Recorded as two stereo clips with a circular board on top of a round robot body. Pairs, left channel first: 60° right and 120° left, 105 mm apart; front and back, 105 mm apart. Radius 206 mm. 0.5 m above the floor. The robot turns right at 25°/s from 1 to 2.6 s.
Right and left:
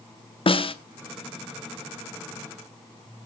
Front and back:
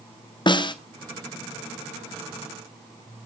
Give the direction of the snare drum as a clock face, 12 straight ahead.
1 o'clock.